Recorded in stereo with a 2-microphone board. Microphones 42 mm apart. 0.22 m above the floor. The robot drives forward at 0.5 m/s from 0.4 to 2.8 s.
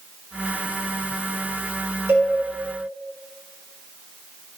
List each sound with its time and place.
2.1 s a cowbell: 70° right (ahead or behind), 0.6 m; by 2.3 s 65° right (ahead or behind), 0.6 m